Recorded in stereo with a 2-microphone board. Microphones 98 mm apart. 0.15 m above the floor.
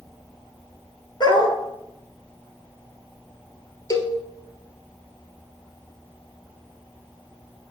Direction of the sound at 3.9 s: 35° left (ahead or behind).